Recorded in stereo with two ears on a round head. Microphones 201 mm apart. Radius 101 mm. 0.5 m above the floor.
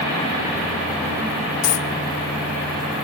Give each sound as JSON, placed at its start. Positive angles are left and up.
{"t": 1.6, "sound": "a dropped coin", "side_deg": 75, "distance_m": 0.9}